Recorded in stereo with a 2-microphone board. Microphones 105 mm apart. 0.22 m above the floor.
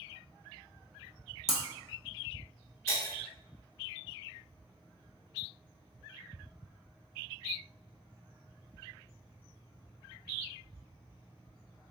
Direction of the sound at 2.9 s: 25° left (ahead or behind).